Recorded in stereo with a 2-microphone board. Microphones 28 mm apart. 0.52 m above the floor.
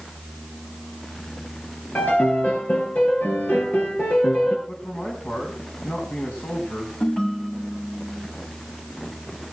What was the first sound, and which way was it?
A piano, 75° left (ahead or behind).